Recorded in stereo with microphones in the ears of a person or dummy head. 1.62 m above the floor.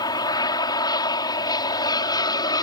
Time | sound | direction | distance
0.0 | an aircraft | 25° left (ahead or behind) | ?